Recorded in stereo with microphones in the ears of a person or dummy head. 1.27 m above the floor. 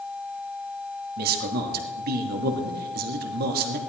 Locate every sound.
1.2 s a man speaking: 55° right (ahead or behind), 2.5 m